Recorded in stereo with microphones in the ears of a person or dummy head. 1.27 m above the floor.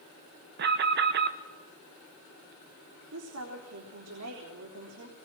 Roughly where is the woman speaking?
Right.